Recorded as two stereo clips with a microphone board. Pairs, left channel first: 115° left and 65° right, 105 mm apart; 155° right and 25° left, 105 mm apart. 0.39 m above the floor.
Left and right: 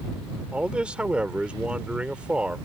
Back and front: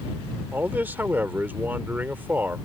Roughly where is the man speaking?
Ahead.